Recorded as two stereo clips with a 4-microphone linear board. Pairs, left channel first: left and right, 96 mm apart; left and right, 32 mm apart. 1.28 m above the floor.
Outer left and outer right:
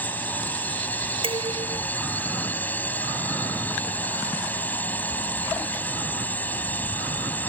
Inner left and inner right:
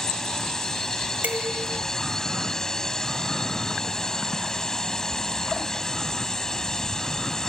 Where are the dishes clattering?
80° right.